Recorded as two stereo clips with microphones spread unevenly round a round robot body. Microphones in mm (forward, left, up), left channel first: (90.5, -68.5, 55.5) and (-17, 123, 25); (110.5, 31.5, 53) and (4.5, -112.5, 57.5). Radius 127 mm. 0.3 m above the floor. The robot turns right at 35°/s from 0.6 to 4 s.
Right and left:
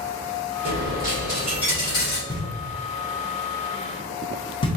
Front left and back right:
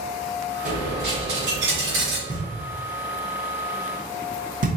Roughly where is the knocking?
Behind.